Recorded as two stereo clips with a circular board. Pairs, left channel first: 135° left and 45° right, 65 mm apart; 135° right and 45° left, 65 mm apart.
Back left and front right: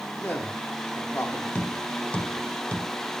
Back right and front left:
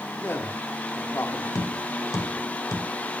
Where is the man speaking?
175° right, 1.8 m.